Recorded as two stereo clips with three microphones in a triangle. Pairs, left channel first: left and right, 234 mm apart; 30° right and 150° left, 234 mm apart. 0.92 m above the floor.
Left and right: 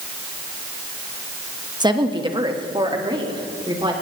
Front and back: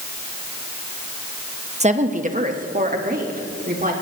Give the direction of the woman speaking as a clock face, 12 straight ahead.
5 o'clock.